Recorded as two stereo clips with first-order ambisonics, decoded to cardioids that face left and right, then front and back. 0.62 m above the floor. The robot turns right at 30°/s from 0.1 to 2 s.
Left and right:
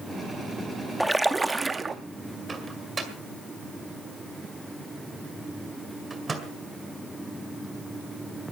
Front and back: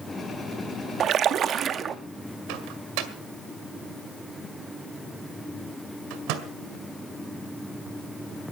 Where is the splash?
175° right, 0.6 m; by 1.9 s 145° right, 0.6 m.